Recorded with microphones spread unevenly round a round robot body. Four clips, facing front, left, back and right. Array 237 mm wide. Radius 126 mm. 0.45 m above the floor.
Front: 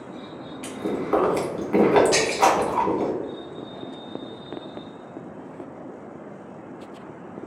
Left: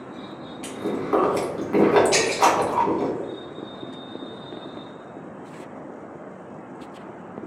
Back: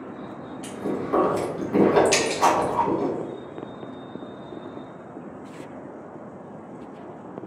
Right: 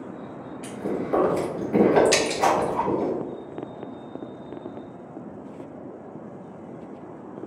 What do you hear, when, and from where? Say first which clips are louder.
0.6 s chewing: left 1 dB, front 1 dB; 20° left, 1.8 m
2.1 s breaking glass: left 1 dB, front 1 dB; 130° right, 0.6 m